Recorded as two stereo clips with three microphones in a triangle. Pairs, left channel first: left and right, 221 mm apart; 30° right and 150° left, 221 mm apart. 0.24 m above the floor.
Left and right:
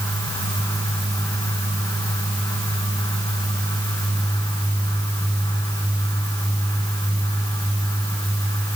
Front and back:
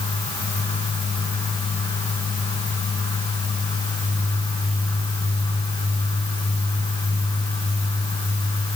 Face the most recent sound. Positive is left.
No sound to turn to.